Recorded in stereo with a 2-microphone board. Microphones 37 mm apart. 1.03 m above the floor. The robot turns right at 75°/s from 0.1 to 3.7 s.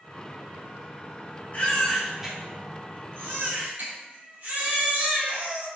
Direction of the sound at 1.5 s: 140° left.